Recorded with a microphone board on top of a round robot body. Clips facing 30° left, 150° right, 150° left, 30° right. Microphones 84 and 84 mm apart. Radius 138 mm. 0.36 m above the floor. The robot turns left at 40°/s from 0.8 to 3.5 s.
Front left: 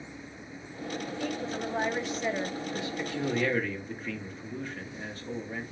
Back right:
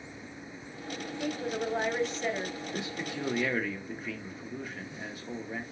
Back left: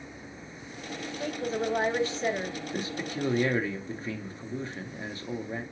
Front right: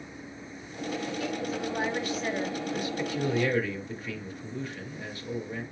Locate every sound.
1.2 s a woman speaking: 155° left, 1.2 m; by 2.6 s 100° left, 1.2 m
2.7 s a man speaking: 165° left, 1.2 m; by 5.6 s 135° left, 1.2 m